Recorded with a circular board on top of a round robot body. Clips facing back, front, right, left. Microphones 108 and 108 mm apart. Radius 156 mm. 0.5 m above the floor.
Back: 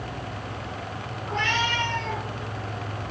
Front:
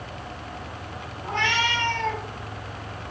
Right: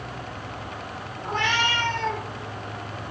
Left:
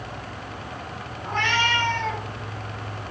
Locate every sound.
1.2 s a cat meowing: 15° right, 2.5 m